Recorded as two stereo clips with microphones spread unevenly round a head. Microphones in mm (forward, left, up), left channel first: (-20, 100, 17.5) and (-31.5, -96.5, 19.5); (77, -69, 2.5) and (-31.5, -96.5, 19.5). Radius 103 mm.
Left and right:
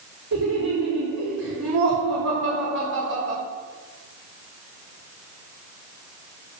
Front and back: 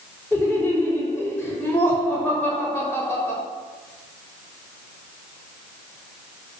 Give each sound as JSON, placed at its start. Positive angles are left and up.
{"t": 0.3, "sound": "laughter", "azimuth_deg": -70, "distance_m": 4.0}